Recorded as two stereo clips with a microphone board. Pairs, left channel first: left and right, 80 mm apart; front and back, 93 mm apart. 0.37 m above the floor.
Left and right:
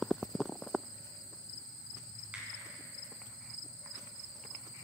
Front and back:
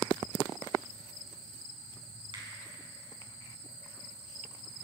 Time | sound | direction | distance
2.3 | a finger snap | 160° right | 3.5 m